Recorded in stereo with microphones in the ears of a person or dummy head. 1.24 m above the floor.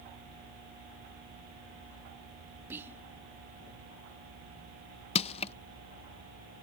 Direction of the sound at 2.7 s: 15° right (ahead or behind).